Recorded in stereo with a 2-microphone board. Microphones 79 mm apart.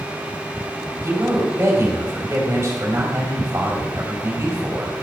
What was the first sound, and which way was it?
A man speaking, 30° right (ahead or behind).